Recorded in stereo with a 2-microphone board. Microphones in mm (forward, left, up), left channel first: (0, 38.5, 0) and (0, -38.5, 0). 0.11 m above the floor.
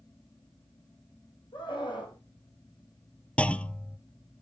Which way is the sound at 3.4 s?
15° left (ahead or behind).